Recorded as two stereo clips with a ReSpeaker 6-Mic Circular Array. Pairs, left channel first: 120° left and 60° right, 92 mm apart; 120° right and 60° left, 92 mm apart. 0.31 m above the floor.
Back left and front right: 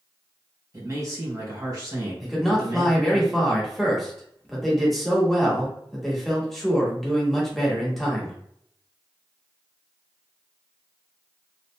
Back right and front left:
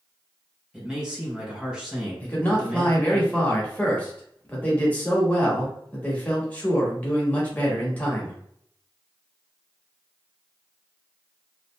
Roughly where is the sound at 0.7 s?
Ahead.